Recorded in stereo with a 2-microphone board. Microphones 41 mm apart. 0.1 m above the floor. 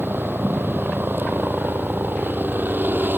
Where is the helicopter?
60° right (ahead or behind); by 3.2 s 55° right (ahead or behind).